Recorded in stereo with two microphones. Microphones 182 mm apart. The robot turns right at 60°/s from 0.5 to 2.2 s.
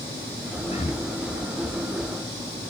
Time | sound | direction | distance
0.7 | breathing | 30° left (ahead or behind) | ?